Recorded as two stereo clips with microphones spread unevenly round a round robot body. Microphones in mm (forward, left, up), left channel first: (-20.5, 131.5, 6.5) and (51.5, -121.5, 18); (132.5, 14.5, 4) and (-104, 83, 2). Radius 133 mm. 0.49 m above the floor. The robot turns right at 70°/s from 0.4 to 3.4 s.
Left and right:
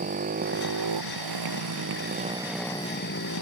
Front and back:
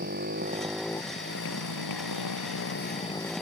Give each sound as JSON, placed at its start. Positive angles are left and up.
{"t": 0.0, "sound": "a motorcycle", "azimuth_deg": -135}